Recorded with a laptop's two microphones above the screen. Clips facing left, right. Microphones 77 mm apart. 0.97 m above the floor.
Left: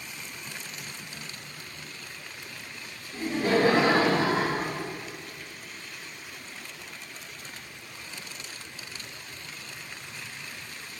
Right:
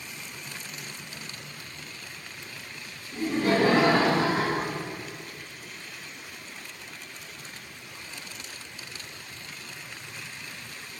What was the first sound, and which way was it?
Laughter, 35° right (ahead or behind).